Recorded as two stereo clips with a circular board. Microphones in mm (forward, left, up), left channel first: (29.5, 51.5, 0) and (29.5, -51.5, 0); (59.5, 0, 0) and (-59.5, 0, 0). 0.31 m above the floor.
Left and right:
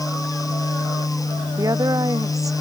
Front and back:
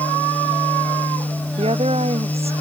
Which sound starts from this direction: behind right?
A woman speaking, at 1.6 s.